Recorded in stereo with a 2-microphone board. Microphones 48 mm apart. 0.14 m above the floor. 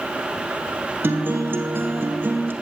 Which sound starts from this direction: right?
A guitar, at 1.0 s.